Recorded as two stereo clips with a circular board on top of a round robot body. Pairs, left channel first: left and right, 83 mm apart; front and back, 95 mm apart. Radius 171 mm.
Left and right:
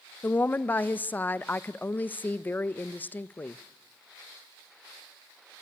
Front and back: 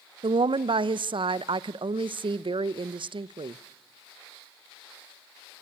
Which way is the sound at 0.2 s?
155° left.